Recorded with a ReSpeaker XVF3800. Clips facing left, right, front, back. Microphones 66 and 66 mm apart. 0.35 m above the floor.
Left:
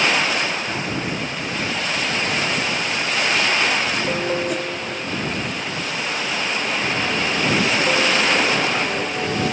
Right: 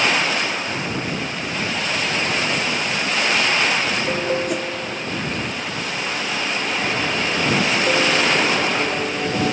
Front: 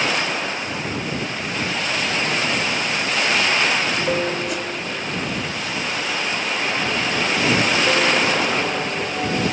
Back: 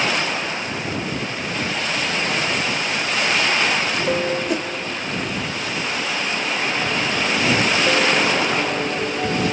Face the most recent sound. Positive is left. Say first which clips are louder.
# even, back 3 dB
turn(degrees=-170)